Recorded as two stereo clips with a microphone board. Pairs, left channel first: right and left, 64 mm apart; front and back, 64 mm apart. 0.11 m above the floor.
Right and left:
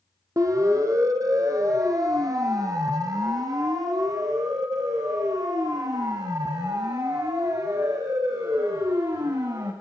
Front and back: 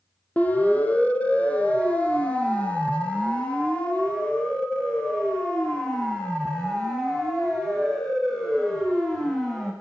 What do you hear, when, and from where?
0.4 s a siren: 65° left, 3.5 m; by 9.7 s 80° left, 8 m